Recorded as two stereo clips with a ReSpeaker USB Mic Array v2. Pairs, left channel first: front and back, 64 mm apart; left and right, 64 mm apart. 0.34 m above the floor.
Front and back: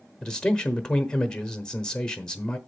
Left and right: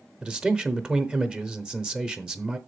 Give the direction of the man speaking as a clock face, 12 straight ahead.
2 o'clock.